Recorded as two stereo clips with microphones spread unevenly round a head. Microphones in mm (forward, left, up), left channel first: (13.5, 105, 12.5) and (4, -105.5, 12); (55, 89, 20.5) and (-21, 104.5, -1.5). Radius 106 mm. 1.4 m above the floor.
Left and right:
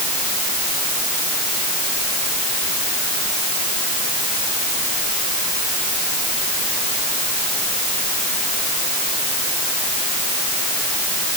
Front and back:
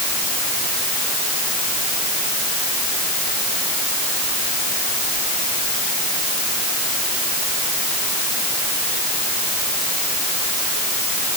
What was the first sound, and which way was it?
Only background noise.